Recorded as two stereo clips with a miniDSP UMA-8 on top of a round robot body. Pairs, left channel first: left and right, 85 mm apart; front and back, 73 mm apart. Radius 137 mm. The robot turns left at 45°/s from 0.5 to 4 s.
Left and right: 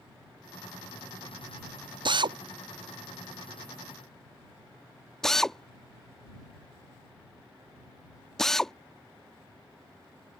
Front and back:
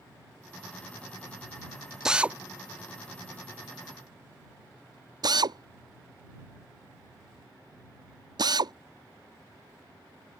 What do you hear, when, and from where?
2.0 s a drill: 95° right; by 8.7 s 175° left